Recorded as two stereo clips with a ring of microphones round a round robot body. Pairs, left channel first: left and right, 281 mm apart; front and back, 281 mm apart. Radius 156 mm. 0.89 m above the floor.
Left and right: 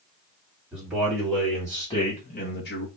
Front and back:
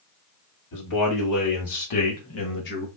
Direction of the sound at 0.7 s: 5° right.